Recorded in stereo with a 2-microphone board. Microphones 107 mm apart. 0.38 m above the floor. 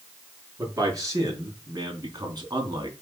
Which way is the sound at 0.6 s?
30° right (ahead or behind).